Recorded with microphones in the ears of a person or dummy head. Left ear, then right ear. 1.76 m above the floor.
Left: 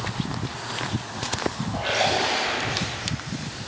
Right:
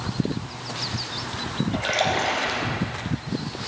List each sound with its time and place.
1.7 s a splash: 70° right (ahead or behind), 4 m